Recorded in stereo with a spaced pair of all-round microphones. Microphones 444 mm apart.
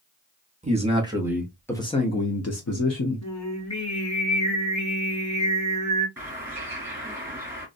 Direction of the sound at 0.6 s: 15° right (ahead or behind).